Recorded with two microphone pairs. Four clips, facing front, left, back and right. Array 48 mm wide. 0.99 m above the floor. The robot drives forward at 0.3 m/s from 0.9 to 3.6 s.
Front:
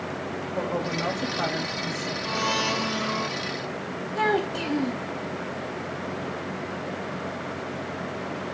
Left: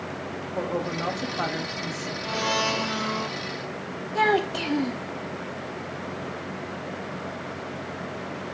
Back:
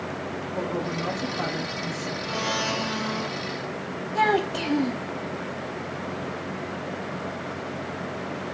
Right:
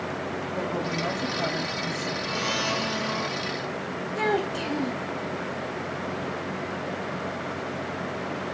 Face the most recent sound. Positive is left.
turn(degrees=120)